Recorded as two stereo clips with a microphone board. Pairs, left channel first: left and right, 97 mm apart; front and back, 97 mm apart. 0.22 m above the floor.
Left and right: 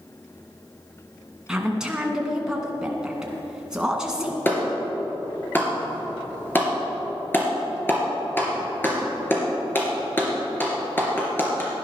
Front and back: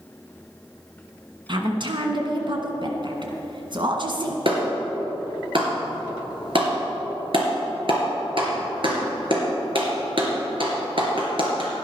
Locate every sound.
1.5 s a woman speaking: 170° right, 2.0 m
4.5 s a clap: 155° left, 3 m